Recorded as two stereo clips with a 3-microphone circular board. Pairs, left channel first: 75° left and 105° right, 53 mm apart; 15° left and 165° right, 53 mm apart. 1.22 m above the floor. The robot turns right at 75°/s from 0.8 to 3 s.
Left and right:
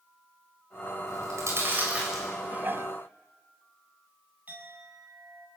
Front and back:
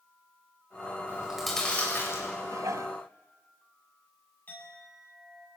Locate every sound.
1.1 s chewing: 105° right, 7.5 m; by 2.3 s 10° right, 7.5 m
2.4 s dishes clattering: 175° right, 1.0 m; by 3.0 s 135° right, 1.0 m
4.5 s a clink: 45° right, 8 m